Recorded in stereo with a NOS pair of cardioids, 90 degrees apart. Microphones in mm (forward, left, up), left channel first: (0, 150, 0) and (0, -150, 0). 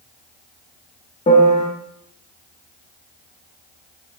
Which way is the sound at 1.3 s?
20° left.